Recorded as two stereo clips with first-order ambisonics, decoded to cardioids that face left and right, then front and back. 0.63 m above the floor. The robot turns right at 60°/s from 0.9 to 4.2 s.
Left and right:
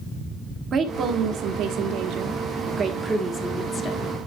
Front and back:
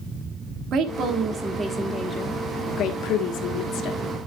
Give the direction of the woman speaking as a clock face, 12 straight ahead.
5 o'clock.